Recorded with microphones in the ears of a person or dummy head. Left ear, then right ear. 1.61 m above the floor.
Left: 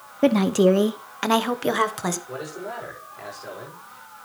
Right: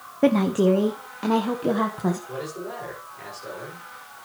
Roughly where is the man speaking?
Left.